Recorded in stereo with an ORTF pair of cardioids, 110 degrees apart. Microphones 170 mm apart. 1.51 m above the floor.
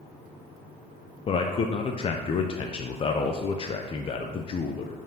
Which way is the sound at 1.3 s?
35° left.